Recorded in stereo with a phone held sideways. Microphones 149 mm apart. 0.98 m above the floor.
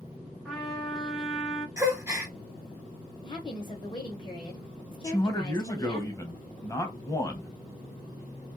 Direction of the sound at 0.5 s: Centre (ahead or behind).